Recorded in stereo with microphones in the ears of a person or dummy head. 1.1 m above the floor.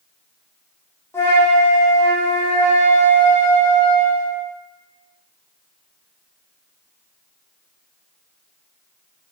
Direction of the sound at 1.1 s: 5° left (ahead or behind).